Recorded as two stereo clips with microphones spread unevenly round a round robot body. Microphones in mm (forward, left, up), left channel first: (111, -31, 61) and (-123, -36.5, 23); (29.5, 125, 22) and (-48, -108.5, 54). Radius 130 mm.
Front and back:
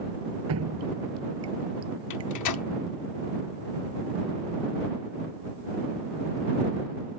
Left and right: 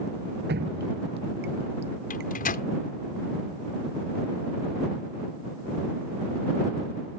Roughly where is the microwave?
Ahead.